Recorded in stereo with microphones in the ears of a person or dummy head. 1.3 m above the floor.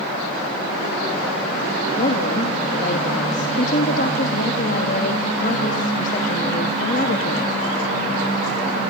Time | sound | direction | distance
2.0 | a woman speaking | 50° left (ahead or behind) | 2 m